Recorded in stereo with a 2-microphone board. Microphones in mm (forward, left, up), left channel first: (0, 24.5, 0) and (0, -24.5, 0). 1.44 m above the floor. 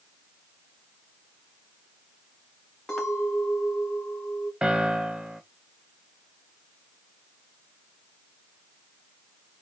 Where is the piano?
15° right (ahead or behind), 0.5 m.